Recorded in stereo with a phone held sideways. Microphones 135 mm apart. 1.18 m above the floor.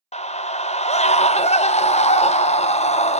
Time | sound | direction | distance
0.1 | a scream | 55° left (ahead or behind) | 0.5 m